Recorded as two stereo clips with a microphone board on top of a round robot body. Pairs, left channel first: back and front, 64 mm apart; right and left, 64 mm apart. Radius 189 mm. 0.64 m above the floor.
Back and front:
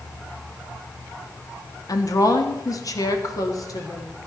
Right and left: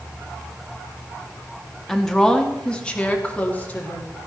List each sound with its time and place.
1.9 s a woman speaking: 175° right, 1.7 m; by 4.3 s 155° right, 2.5 m